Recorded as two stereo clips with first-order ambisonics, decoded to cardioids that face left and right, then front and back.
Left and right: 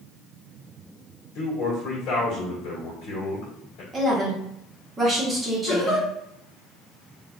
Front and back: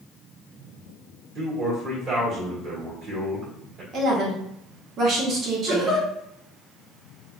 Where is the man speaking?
130° left, 1.6 m.